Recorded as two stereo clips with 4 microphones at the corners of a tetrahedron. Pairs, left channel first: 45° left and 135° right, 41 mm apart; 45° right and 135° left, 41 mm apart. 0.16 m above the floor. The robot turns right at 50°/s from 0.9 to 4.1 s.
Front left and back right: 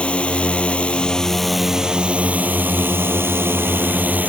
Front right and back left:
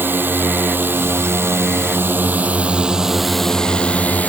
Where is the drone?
105° left; by 4.3 s 95° right.